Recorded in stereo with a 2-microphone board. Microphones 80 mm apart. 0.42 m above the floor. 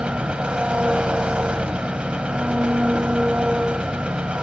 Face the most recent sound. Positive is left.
turn(degrees=-10)  # may be behind; listen again after turning